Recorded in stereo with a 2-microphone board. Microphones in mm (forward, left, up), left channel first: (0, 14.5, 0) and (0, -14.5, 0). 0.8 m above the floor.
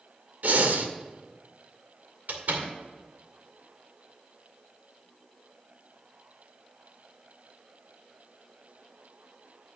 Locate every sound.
0.4 s breathing: 75° right (ahead or behind), 0.9 m
2.3 s a door slam: 80° right, 2 m